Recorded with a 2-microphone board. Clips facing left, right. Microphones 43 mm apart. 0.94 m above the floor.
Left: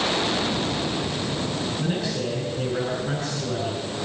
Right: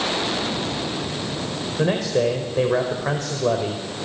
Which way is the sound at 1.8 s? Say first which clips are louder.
Right 11 dB; 65° right (ahead or behind).